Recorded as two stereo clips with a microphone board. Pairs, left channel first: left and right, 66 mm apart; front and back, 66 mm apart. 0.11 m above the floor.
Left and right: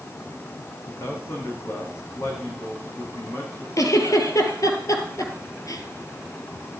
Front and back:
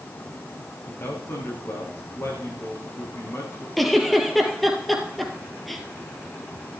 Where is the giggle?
90° left, 2 m.